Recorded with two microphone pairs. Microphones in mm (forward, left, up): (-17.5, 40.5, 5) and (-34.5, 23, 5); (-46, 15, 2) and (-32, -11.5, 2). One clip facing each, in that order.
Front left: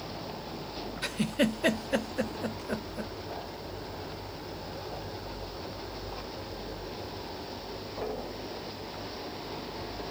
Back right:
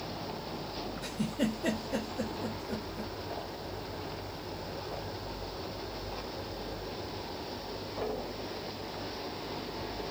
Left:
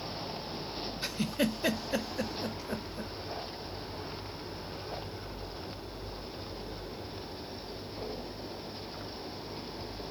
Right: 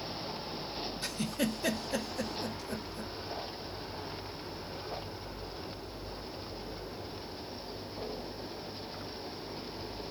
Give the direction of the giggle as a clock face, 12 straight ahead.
10 o'clock.